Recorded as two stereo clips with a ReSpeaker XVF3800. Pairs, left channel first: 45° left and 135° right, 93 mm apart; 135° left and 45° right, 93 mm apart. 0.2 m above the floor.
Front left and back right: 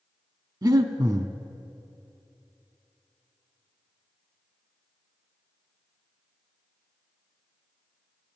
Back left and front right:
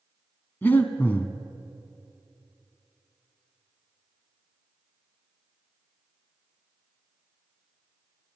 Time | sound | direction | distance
0.6 | breathing | 165° right | 0.8 m